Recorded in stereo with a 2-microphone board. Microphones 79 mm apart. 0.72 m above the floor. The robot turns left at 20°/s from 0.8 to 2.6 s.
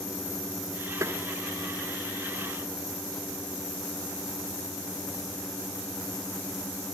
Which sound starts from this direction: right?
Tapping, at 1.0 s.